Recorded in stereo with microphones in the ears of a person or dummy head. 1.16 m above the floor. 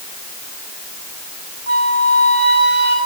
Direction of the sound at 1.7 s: 65° right (ahead or behind).